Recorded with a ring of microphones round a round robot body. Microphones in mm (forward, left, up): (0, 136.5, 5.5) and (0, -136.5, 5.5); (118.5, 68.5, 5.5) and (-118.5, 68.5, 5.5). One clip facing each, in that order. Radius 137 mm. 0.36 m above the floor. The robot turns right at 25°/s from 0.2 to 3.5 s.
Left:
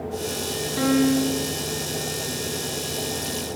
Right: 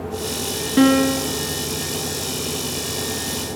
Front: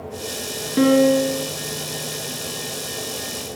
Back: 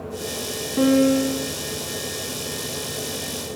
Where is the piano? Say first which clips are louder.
Right 4 dB, front 2 dB; 70° right, 3 m; by 1.5 s 55° right, 3 m.